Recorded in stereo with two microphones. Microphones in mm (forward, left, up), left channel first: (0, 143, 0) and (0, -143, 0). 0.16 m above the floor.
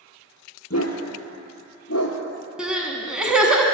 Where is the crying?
5° right (ahead or behind), 0.9 m.